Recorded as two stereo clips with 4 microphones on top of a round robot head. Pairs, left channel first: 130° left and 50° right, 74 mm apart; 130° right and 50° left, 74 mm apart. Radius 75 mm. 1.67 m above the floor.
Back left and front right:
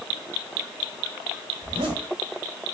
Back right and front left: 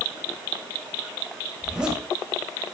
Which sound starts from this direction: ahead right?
A zipper, at 1.6 s.